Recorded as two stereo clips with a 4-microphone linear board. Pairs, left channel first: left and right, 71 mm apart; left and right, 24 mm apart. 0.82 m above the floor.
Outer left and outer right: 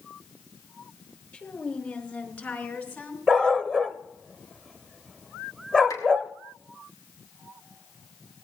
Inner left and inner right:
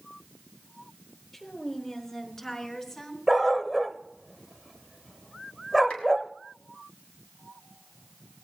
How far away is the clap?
About 5 m.